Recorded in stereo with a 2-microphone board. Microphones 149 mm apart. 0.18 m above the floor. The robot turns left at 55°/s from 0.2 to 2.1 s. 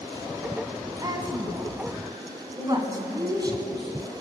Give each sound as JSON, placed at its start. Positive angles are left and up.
{"t": 1.0, "sound": "a woman speaking", "side_deg": -25, "distance_m": 1.5}
{"t": 2.5, "sound": "a woman speaking", "side_deg": -25, "distance_m": 5.0}